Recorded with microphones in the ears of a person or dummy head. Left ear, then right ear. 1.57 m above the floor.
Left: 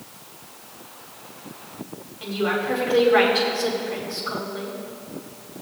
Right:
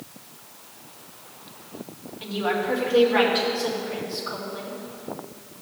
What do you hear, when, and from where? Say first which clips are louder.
2.2 s a woman speaking: left 1 dB; centre (ahead or behind), 2.5 m